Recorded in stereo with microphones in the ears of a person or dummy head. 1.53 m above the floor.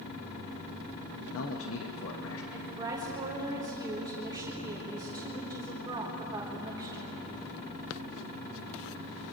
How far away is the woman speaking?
About 4.5 m.